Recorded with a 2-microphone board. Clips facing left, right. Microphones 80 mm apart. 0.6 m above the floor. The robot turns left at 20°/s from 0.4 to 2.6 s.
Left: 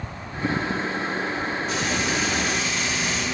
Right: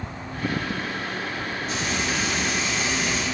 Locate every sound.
1.7 s frying: 50° right (ahead or behind), 1.9 m; by 3.2 s 55° right (ahead or behind), 1.9 m